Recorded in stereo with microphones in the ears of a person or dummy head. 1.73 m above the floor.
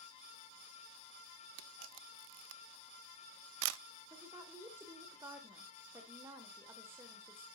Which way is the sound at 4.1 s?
15° right (ahead or behind).